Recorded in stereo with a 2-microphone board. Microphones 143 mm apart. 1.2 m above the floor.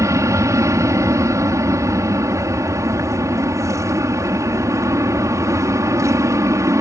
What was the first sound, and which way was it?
An aircraft, 20° right (ahead or behind).